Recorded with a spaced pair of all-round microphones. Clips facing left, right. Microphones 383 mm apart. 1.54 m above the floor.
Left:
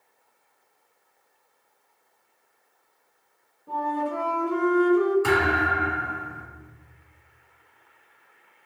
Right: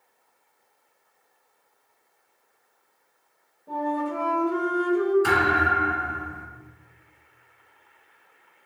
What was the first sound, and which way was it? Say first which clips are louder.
A flute: right 2 dB; 5° left (ahead or behind).